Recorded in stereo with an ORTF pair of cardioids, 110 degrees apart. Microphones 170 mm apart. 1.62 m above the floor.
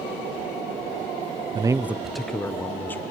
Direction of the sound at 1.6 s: 30° right.